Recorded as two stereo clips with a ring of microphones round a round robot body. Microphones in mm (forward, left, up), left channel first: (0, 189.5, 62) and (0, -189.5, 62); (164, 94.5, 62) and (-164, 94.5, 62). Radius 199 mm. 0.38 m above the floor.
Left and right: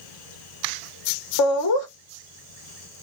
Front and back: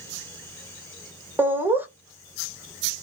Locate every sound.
1.4 s laughter: 100° left, 1.5 m